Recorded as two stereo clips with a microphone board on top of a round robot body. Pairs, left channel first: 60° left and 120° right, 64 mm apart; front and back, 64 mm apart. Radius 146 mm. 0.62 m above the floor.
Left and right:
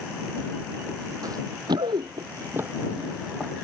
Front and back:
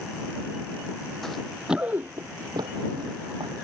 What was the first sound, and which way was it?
Running footsteps, 85° right.